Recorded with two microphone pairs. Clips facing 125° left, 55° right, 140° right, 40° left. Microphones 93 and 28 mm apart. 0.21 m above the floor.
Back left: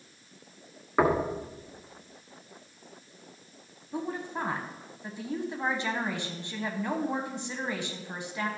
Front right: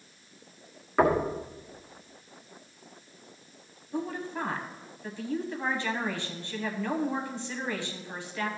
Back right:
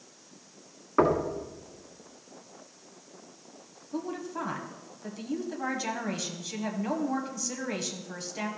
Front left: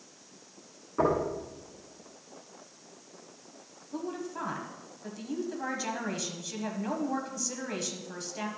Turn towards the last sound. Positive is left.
turn(degrees=155)